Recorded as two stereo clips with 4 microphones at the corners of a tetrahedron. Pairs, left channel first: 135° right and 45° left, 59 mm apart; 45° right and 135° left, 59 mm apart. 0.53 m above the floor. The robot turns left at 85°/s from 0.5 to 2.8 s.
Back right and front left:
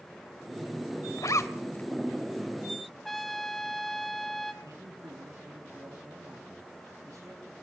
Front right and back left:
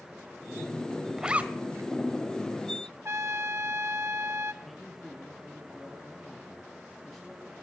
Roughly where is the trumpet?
Behind left.